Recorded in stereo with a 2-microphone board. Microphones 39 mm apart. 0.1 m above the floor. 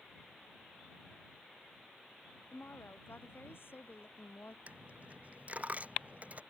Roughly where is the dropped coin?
Right.